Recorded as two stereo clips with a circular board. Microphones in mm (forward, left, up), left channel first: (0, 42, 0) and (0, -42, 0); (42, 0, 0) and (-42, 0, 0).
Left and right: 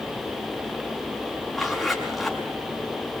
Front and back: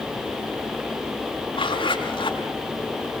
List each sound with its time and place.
1.5 s a zipper: straight ahead, 6.5 m